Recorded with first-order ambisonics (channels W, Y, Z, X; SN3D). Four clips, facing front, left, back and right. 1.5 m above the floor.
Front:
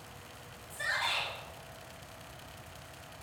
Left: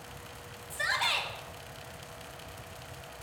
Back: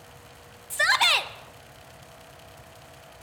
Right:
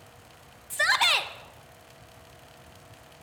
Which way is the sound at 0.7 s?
150° right.